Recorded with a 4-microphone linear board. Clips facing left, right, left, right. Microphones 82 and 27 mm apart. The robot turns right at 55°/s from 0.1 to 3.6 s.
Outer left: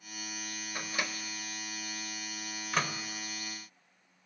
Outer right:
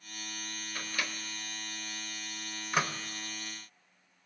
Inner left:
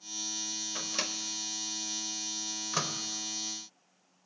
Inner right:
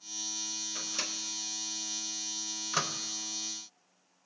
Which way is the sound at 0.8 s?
20° left (ahead or behind).